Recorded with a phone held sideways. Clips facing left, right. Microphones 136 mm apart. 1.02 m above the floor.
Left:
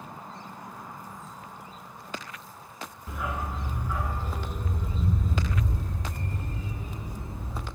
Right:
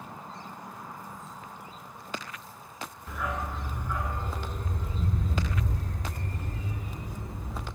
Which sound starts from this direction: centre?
A dog barking, at 3.1 s.